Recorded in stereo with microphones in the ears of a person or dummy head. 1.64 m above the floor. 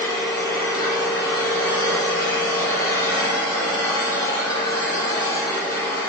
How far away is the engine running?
About 1.6 m.